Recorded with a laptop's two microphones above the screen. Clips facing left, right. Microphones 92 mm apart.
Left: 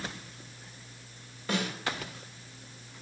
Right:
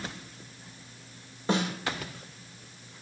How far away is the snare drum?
About 2.5 m.